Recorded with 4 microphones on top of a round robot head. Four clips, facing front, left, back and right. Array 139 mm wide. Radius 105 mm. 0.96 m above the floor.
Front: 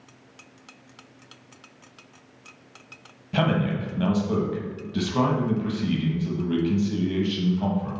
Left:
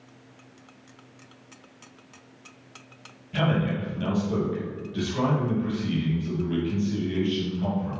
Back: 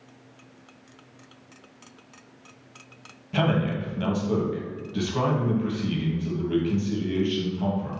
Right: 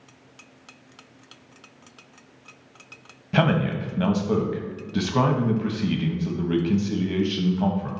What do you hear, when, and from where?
3.3 s a man speaking: 80° right, 1.6 m